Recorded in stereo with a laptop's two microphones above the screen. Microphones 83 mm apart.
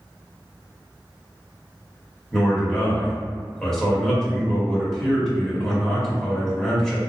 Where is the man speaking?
5° left (ahead or behind), 1.7 m.